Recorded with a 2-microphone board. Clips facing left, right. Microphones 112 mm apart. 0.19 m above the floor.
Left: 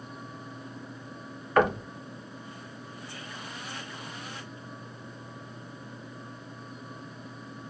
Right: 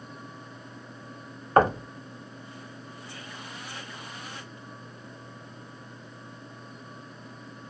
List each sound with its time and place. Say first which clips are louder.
1.6 s knocking: right 3 dB; 40° right (ahead or behind), 0.9 m